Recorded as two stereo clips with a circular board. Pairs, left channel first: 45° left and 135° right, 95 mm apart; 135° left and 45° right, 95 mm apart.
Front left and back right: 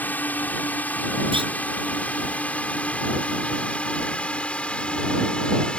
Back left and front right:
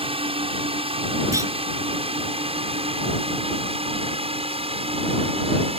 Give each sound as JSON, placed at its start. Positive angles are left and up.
{"t": 0.0, "sound": "a drone", "azimuth_deg": -25}
{"t": 1.3, "sound": "a clunk", "azimuth_deg": -105}